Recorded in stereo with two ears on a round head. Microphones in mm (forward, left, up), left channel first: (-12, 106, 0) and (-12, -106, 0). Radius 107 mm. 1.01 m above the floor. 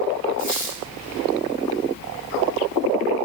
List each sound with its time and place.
0.4 s a squeak: 55° left (ahead or behind), 1.6 m